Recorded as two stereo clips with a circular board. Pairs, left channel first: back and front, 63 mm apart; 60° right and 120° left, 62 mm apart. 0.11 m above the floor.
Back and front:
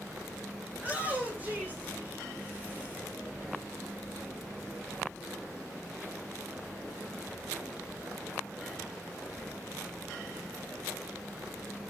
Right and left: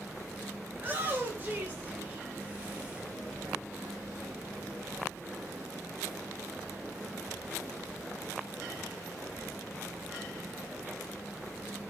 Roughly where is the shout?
Ahead left.